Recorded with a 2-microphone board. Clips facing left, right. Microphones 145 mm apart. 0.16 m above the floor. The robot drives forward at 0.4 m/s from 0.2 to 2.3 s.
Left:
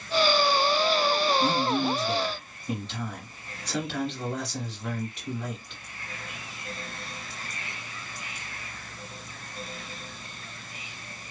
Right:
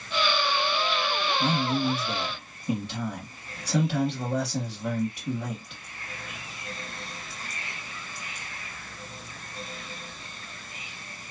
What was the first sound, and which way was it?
A man speaking, 10° right (ahead or behind).